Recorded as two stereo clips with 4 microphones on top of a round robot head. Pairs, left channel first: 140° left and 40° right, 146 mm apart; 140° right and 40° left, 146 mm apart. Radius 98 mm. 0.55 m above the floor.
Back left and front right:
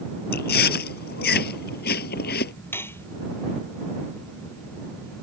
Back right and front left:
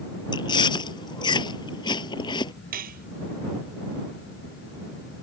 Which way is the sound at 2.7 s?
65° left.